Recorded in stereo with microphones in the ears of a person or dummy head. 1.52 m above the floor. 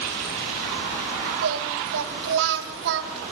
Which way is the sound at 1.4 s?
60° right (ahead or behind).